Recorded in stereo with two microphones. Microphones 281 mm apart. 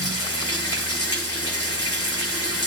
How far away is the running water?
About 4.5 m.